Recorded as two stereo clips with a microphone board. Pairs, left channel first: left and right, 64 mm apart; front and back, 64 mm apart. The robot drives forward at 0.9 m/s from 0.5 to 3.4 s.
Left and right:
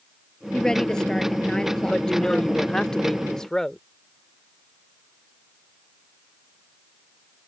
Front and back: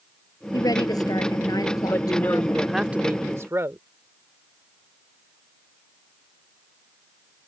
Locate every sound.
0.5 s a woman speaking: 10° left
1.9 s a woman speaking: 10° left; by 3.8 s 165° left